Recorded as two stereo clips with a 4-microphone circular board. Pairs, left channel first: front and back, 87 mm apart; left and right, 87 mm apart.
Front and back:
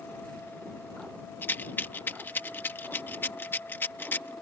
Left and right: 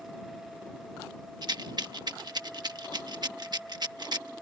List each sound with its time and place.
1.4 s a rattle: 65° right